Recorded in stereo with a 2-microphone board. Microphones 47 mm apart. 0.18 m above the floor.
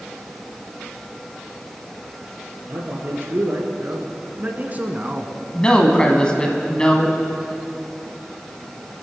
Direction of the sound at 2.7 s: 55° right (ahead or behind).